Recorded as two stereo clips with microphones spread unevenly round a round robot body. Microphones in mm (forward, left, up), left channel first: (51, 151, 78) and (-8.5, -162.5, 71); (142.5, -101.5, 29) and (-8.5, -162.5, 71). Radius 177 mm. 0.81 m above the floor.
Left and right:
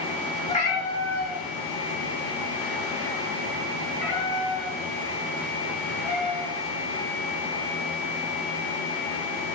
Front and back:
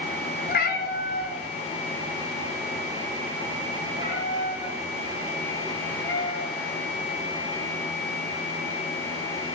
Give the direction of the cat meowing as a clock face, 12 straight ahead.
11 o'clock.